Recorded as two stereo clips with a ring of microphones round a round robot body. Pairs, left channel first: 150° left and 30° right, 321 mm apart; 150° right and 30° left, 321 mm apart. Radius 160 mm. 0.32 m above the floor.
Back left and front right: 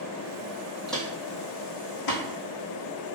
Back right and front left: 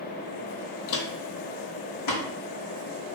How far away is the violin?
I don't hear a violin.